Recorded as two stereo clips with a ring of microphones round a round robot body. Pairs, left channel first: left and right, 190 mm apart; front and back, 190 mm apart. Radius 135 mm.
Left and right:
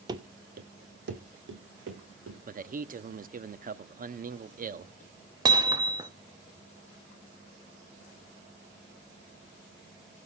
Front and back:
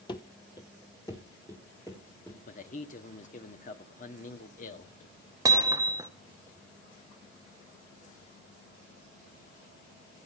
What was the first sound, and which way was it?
Running footsteps, 45° right.